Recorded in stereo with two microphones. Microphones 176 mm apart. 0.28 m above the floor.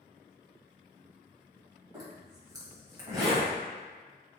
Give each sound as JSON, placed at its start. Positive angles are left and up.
{"t": 1.9, "sound": "a zipper", "side_deg": -20, "distance_m": 1.2}